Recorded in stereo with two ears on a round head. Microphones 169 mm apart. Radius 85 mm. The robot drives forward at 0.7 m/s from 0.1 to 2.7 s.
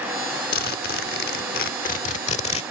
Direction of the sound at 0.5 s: 50° left (ahead or behind).